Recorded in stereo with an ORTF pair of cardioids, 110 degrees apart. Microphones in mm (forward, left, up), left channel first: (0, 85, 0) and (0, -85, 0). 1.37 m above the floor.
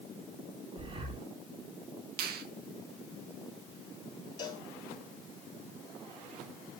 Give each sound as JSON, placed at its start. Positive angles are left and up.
{"t": 0.8, "sound": "breathing", "azimuth_deg": -30, "distance_m": 5.5}
{"t": 2.2, "sound": "a finger snap", "azimuth_deg": -65, "distance_m": 1.9}
{"t": 4.4, "sound": "a cowbell", "azimuth_deg": 25, "distance_m": 3.5}